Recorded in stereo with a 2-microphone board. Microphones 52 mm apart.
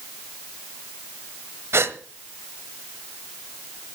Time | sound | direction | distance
1.7 | a gasp | 60° right (ahead or behind) | 1.2 m